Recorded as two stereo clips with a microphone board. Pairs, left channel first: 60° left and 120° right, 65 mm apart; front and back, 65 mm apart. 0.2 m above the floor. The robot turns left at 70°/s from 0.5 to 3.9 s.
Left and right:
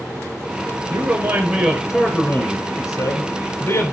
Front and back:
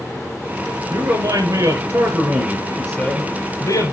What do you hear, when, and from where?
0.9 s a man speaking: 140° right, 3 m; by 3.9 s 10° left, 3 m